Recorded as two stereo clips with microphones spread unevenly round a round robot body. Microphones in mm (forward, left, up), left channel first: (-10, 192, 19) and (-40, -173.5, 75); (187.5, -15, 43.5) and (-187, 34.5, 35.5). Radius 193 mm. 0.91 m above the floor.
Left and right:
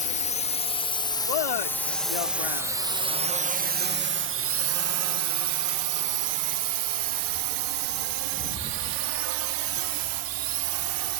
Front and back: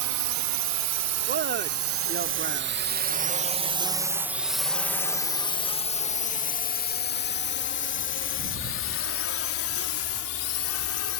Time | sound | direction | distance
0.0 | a drone | 145° left | ?
1.3 | a man speaking | 110° left | ?